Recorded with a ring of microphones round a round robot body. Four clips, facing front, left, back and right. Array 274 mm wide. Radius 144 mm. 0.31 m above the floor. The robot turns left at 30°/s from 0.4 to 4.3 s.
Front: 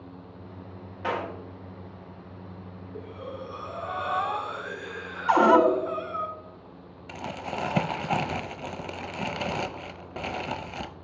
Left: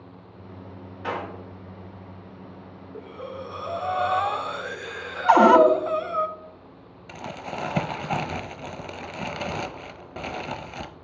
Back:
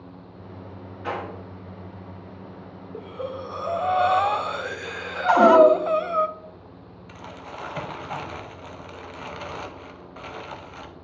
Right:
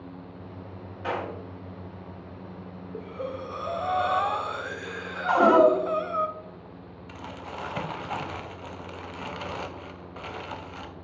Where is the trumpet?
I don't hear a trumpet.